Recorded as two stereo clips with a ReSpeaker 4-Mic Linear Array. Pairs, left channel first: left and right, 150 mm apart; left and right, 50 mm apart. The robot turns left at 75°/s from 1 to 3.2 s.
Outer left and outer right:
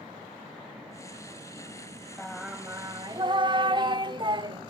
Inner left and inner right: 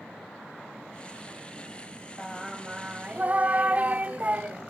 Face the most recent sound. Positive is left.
turn(degrees=-70)